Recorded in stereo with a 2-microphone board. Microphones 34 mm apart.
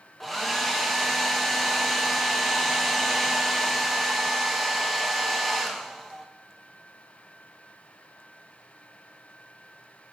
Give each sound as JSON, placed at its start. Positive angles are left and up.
{"t": 0.2, "sound": "a hair dryer", "side_deg": 5, "distance_m": 0.9}